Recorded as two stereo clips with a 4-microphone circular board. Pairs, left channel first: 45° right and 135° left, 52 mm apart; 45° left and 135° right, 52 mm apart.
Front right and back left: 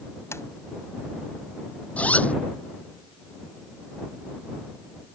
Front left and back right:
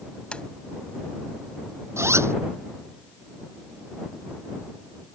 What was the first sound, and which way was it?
A sliding door, 25° right.